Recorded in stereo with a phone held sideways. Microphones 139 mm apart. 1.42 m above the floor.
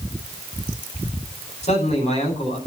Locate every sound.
1.6 s a man speaking: 50° left (ahead or behind), 9.5 m